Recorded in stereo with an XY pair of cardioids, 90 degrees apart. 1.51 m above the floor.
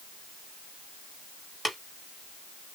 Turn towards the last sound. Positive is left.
turn(degrees=5)